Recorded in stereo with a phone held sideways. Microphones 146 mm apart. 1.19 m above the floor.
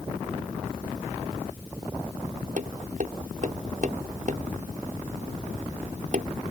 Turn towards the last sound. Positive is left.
turn(degrees=-60)  # may be behind; listen again after turning